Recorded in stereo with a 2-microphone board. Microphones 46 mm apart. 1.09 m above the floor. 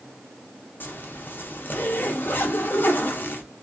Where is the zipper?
45° left (ahead or behind), 0.6 m.